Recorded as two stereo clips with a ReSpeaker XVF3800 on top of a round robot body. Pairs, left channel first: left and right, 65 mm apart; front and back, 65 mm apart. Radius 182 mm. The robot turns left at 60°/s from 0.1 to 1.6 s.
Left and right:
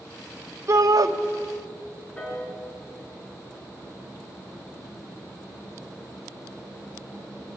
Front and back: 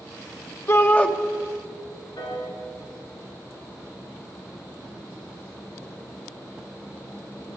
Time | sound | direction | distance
0.7 | a shout | 45° right | 2 m
2.2 | a piano | 15° left | 6.5 m